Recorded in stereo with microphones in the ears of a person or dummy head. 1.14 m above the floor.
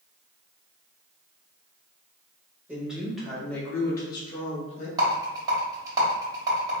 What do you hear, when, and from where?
2.7 s a woman speaking: 10° right (ahead or behind), 1.6 m; by 4.9 s 40° left (ahead or behind), 1.4 m
5.0 s a rattle: 25° right (ahead or behind), 1.5 m